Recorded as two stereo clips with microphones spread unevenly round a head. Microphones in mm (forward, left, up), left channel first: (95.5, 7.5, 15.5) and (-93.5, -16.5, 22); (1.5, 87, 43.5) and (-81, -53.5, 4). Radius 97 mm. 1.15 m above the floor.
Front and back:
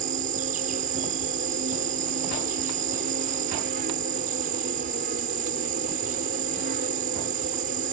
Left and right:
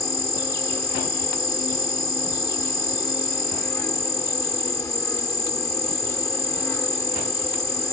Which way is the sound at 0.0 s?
135° left.